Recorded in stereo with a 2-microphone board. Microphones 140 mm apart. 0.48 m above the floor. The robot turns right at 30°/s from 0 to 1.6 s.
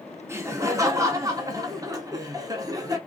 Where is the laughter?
20° right (ahead or behind), 0.7 m; by 3.0 s 25° right (ahead or behind), 0.7 m.